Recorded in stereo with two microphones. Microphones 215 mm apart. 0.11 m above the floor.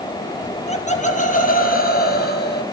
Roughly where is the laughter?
Left.